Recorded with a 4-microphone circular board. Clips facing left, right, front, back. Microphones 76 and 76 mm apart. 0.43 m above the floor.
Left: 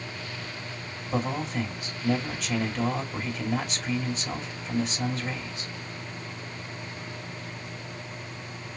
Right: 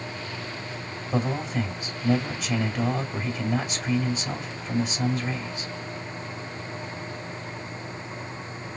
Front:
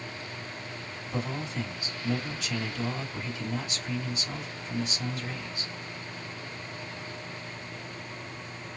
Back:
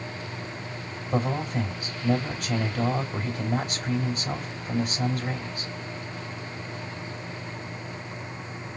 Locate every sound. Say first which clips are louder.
1.1 s a man speaking: right 2 dB, back 7 dB; 175° right, 2 m